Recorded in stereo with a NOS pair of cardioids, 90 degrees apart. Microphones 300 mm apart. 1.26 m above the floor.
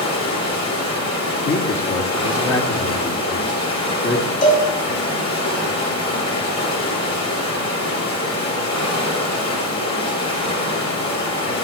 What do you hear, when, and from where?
0.0 s running water: 60° left, 6 m
1.4 s a man speaking: 45° left, 3 m
4.4 s a cowbell: 55° left, 6 m